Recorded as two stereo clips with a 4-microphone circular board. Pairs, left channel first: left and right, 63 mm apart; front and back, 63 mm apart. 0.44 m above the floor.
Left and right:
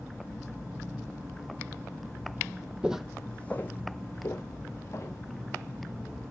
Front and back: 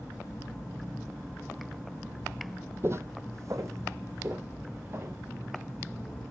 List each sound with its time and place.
2.8 s footsteps: 155° right, 0.6 m; by 5.2 s 135° left, 2 m